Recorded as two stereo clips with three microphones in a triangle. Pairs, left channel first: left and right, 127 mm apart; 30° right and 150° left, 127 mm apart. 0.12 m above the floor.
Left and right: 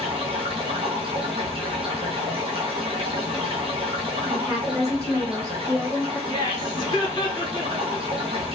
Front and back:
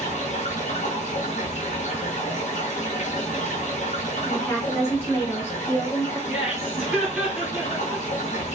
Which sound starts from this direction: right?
A woman speaking, at 4.2 s.